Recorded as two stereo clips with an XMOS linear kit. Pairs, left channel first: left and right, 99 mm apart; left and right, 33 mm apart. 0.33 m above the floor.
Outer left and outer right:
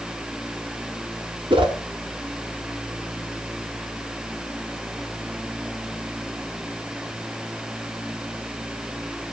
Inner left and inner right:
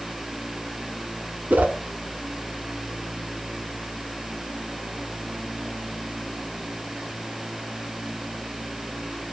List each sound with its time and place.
1.5 s a whoosh: 60° right (ahead or behind), 1.6 m